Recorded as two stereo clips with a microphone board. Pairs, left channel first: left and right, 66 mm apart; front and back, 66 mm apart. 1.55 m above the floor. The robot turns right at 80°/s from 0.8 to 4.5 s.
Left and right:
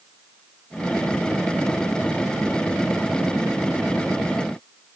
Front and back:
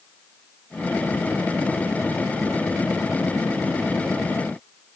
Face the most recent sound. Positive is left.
No sound to turn to.